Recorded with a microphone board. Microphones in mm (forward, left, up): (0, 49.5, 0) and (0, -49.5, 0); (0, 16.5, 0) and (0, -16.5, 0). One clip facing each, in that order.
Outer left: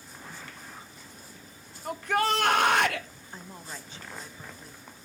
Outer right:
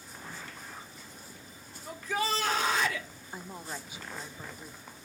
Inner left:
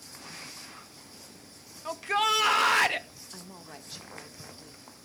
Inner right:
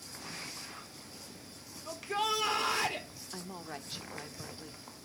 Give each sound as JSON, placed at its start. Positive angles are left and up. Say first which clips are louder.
{"t": 1.9, "sound": "a shout", "louder": "outer left 5 dB, inner left 7 dB", "side_deg": 65, "distance_m": 1.0}
{"t": 3.3, "sound": "a woman speaking", "louder": "outer right 2 dB, inner right 4 dB", "side_deg": -10, "distance_m": 0.6}